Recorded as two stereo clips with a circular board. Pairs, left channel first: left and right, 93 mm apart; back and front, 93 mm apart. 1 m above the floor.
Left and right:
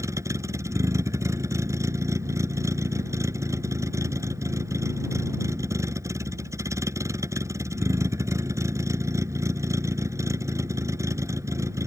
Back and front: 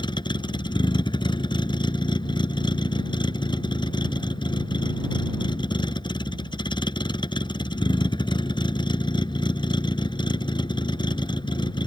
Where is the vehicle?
150° right.